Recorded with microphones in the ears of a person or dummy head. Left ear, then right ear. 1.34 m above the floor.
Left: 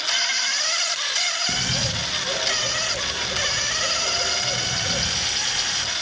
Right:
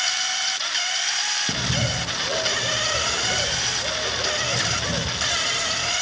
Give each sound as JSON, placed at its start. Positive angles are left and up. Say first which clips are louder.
{"t": 1.5, "sound": "a bird", "louder": "left 1 dB", "side_deg": -40, "distance_m": 0.6}